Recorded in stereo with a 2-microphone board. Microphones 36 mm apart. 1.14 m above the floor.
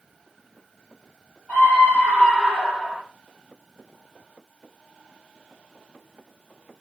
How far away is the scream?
About 3.5 m.